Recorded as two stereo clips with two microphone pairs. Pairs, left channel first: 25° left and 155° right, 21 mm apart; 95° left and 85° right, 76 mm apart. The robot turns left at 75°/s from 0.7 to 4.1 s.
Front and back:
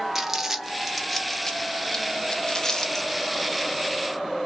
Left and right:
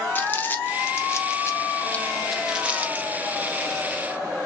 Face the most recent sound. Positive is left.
turn(degrees=-125)